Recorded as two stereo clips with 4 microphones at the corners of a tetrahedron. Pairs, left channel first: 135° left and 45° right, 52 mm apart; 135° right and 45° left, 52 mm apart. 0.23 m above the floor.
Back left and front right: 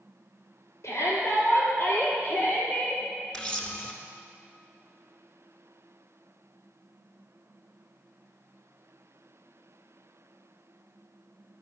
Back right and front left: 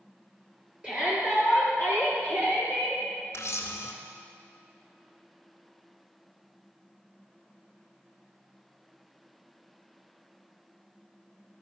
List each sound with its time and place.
0.8 s a shout: 110° left, 4 m; by 3.0 s 65° left, 4.5 m
3.3 s a camera shutter: 155° right, 1.1 m